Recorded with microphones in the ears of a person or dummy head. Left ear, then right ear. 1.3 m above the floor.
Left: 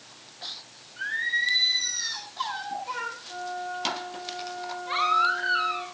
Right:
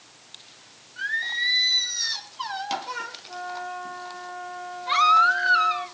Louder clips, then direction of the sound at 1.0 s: Right 1 dB; 30° right (ahead or behind).